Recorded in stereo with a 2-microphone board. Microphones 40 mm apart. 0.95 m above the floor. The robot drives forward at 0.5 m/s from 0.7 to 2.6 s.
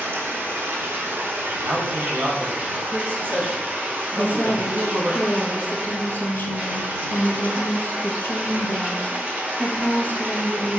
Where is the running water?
75° right (ahead or behind), 1.1 m; by 10.8 s 40° right (ahead or behind), 1.6 m.